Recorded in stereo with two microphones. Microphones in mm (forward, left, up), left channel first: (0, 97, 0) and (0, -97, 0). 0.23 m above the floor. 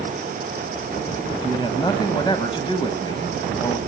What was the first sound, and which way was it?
A man speaking, 25° left (ahead or behind).